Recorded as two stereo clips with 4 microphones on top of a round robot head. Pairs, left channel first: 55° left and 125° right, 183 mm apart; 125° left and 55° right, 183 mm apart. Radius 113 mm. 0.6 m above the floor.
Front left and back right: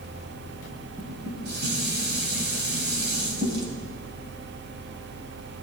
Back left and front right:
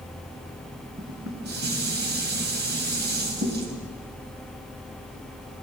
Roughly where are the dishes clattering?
Right.